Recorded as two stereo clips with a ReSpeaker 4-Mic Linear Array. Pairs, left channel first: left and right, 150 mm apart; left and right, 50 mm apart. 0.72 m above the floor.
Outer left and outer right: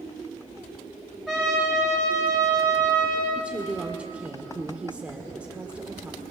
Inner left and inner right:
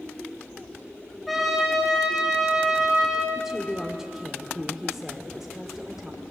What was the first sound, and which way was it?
A trumpet, centre (ahead or behind).